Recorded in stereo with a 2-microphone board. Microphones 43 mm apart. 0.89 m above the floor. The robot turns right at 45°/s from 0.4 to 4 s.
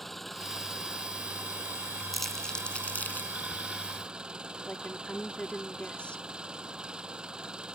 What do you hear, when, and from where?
0.0 s an engine running: 175° left; by 7.8 s 20° right
2.1 s crumpling: centre (ahead or behind); by 3.3 s 55° left (ahead or behind)
4.7 s a woman speaking: 30° left (ahead or behind)